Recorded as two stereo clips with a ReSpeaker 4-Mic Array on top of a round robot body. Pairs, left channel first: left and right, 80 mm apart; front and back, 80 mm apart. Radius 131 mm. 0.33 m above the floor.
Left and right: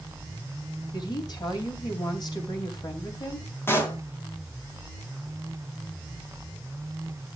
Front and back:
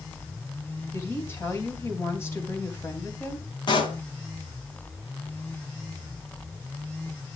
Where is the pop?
30° left, 3.5 m.